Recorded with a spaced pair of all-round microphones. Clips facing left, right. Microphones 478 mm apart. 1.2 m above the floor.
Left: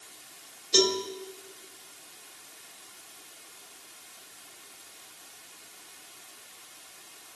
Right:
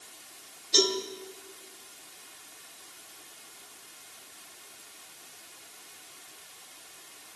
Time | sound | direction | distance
0.7 | a cowbell | 70° left (ahead or behind) | 2 m